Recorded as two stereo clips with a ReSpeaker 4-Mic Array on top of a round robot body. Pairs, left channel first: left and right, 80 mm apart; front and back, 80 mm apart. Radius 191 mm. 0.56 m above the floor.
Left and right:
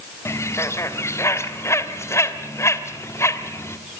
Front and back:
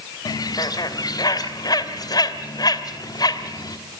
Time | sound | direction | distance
0.2 | a bird | 35° left | 1.4 m